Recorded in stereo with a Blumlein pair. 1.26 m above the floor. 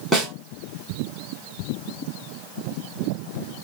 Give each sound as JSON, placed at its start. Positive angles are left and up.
{"t": 0.1, "sound": "a snare drum", "azimuth_deg": 0, "distance_m": 3.0}